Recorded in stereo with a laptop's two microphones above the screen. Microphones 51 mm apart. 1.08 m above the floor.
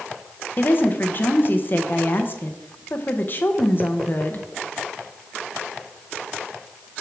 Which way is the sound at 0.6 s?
45° left (ahead or behind).